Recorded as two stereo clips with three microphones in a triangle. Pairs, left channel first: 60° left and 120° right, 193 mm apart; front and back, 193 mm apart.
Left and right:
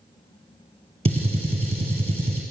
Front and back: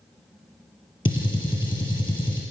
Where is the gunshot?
65° right, 1.3 m.